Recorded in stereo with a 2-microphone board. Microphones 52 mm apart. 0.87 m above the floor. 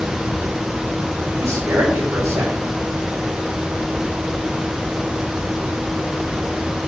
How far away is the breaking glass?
I don't hear breaking glass.